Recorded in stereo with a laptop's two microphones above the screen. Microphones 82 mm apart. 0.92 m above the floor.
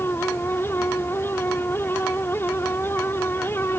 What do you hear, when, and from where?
0.0 s a fan: 30° left (ahead or behind)